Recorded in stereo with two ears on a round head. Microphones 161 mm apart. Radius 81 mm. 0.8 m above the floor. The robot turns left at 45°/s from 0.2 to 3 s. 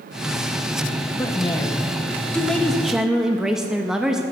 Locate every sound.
1.2 s a woman speaking: 20° left (ahead or behind), 0.7 m; by 4.2 s 5° right (ahead or behind), 0.7 m